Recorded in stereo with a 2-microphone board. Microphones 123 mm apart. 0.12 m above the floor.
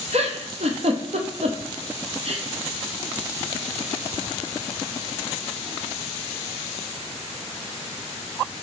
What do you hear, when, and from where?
0.1 s a giggle: 60° right (ahead or behind), 0.6 m